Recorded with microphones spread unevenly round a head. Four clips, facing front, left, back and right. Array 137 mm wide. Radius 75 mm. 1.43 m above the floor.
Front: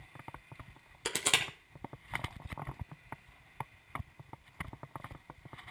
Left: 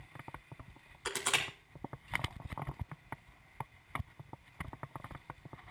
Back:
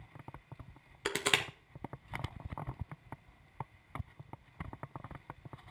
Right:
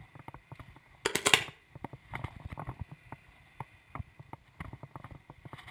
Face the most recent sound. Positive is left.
turn(degrees=-100)